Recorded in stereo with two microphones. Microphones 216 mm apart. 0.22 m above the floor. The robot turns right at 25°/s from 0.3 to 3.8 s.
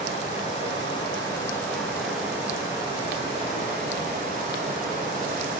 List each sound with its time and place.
0.0 s running water: 140° left, 3 m; by 5.6 s 135° right, 3 m